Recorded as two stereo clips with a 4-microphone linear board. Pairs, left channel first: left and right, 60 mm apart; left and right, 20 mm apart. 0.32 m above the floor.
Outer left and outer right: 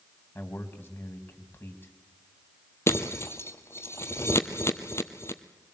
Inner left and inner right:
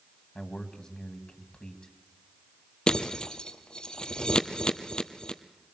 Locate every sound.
0.3 s a man speaking: 35° left (ahead or behind), 2.5 m
2.9 s breaking glass: 45° left (ahead or behind), 1.2 m